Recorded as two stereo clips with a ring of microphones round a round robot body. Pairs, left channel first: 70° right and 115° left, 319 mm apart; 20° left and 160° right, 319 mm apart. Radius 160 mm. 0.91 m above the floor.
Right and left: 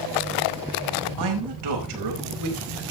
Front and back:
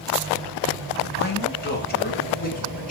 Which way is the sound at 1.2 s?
80° left.